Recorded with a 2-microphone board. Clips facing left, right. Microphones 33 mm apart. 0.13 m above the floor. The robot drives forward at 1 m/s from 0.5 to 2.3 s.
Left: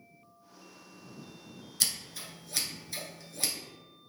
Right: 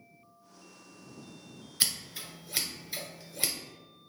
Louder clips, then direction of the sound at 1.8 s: Right 1 dB; 25° right (ahead or behind).